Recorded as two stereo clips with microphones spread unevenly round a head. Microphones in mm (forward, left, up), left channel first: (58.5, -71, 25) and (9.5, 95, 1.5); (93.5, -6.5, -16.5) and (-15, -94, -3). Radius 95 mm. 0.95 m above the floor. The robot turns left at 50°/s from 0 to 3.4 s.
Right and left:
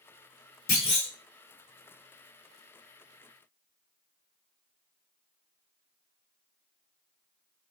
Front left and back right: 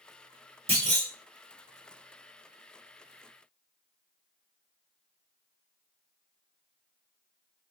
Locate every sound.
0.7 s a clunk: 90° right, 1.2 m; by 1.1 s 110° right, 1.2 m